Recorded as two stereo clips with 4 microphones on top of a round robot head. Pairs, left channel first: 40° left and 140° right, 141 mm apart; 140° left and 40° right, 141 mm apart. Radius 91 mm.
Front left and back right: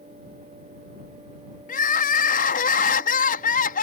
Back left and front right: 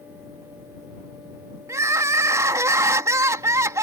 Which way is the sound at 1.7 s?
30° left.